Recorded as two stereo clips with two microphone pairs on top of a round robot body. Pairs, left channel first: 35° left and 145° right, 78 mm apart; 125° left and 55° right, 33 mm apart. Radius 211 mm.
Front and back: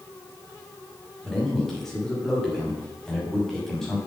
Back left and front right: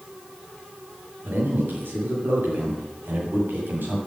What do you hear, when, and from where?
1.2 s a man speaking: 50° right, 6 m